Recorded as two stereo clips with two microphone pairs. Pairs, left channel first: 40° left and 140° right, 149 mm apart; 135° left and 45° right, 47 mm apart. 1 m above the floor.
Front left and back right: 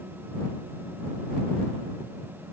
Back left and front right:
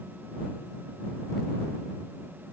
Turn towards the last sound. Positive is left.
No sound to turn to.